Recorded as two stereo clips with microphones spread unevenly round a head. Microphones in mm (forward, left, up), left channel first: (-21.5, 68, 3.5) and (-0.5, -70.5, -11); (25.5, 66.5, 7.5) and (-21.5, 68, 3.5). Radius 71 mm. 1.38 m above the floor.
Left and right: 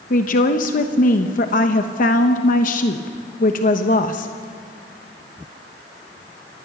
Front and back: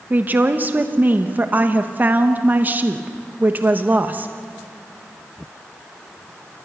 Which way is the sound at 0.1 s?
125° left.